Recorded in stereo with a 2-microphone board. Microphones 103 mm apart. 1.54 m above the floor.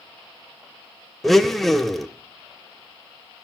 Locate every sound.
1.2 s a blender: centre (ahead or behind), 0.8 m